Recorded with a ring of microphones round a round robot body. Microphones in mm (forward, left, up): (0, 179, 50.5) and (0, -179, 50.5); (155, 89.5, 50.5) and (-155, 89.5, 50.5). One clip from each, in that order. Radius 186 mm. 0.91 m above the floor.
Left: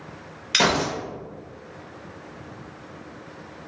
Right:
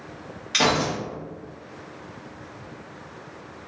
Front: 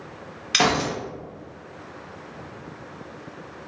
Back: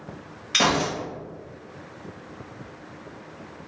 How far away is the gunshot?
About 1.1 m.